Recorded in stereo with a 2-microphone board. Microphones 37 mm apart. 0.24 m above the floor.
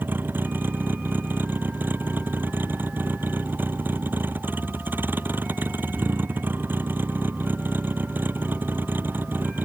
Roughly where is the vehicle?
Right.